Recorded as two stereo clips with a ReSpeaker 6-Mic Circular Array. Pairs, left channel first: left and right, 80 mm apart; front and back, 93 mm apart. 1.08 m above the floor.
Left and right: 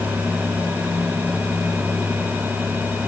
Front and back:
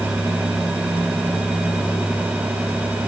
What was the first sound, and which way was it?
Only background noise.